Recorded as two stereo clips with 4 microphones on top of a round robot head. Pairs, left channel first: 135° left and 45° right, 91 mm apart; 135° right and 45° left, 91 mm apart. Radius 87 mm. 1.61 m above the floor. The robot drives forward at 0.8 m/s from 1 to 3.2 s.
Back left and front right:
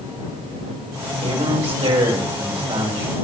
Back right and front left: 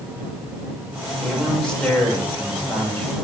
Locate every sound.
1.2 s a man speaking: 55° right, 8 m; by 3.1 s 65° right, 7.5 m